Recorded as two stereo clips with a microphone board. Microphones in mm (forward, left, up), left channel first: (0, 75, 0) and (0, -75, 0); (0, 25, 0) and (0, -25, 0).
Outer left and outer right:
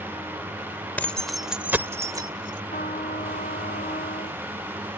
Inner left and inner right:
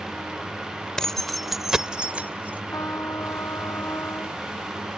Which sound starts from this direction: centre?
Keys jangling, at 1.0 s.